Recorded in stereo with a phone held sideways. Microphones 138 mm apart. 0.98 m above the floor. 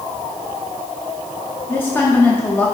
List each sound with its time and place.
1.7 s a woman speaking: 15° left (ahead or behind), 1.3 m